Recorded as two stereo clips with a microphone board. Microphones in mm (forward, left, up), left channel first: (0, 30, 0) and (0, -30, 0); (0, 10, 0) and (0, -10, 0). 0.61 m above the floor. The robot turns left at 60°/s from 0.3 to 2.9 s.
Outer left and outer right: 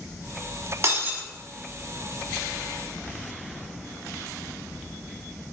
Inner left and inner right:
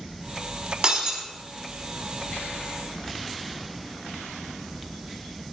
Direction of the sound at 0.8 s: 50° right (ahead or behind).